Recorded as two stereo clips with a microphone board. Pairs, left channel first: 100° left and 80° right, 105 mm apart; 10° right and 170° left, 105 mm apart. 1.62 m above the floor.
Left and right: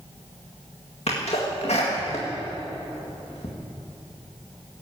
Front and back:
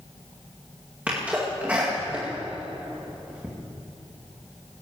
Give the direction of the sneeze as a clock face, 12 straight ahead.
9 o'clock.